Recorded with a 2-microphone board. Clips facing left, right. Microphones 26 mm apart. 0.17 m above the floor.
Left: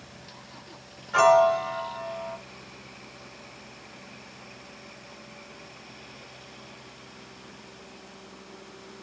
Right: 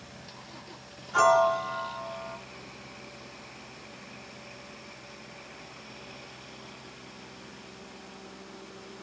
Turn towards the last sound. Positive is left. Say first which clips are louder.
# left 3 dB
turn(degrees=40)  # may be behind; listen again after turning